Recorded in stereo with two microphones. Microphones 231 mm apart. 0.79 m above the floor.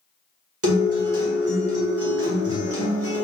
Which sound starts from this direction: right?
A guitar, at 0.6 s.